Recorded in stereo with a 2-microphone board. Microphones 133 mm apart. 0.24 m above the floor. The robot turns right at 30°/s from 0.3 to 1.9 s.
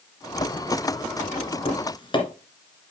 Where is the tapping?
45° left (ahead or behind), 1.7 m; by 2.2 s 35° left (ahead or behind), 1.7 m.